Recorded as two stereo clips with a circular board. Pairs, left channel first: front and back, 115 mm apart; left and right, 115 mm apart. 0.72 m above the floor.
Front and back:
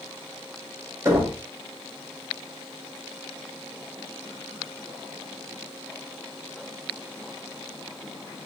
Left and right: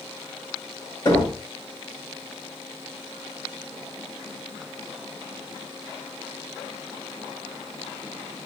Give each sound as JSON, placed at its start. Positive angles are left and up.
{"t": 1.1, "sound": "knocking", "azimuth_deg": 120, "distance_m": 1.3}